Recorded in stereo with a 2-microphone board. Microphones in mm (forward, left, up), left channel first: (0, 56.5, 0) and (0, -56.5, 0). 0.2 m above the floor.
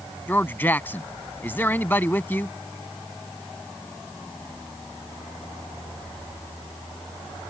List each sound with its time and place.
0.3 s a man speaking: 15° left (ahead or behind)